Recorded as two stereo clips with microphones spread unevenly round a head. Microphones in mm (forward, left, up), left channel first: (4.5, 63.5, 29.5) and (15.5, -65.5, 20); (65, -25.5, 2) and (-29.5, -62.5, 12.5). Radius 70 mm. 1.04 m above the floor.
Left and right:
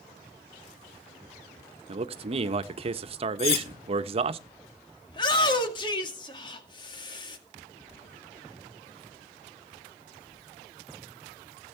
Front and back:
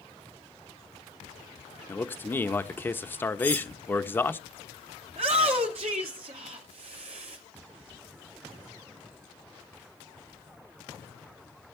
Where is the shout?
150° left, 2 m.